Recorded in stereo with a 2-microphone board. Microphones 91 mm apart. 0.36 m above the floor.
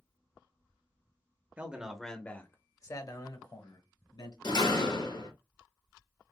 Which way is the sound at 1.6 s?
20° right (ahead or behind).